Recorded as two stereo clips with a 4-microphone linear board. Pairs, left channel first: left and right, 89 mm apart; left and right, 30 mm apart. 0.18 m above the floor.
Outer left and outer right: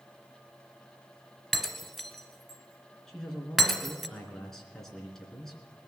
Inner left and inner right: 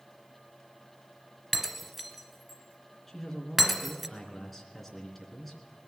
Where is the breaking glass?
Centre (ahead or behind), 1.4 m.